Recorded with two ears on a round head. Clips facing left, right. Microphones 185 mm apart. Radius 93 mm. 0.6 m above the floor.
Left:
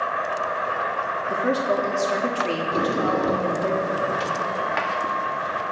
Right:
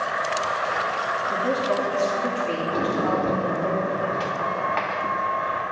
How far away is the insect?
About 4 m.